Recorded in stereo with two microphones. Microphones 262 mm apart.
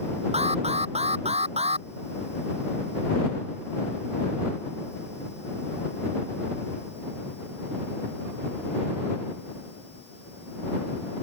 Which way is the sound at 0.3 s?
25° right (ahead or behind).